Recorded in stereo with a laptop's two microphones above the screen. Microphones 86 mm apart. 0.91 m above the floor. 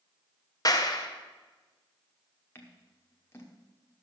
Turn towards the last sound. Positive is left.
turn(degrees=30)  # may be behind; listen again after turning